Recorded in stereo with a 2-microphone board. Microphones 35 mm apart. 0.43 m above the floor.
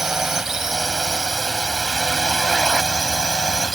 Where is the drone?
10° right (ahead or behind); by 3.8 s 15° right (ahead or behind).